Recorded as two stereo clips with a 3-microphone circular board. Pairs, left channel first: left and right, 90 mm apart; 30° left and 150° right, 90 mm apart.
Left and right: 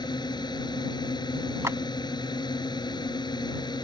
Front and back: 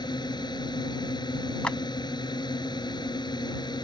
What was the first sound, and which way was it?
A drone, 60° left.